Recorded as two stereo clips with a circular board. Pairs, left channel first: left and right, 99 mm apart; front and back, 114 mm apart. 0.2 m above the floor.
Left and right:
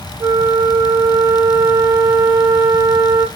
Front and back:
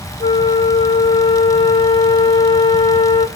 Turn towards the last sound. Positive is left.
turn(degrees=-40)